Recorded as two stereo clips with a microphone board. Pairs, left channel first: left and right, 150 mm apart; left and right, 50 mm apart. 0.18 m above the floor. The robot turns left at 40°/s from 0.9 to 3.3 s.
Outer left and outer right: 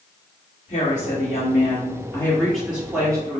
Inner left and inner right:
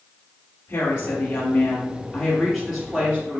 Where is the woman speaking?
65° left, 2.0 m; by 3.4 s 30° right, 2.0 m.